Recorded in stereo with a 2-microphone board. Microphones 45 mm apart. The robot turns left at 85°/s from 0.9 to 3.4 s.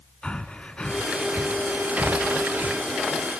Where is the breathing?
25° left (ahead or behind), 1.0 m; by 2.8 s 45° right (ahead or behind), 1.0 m.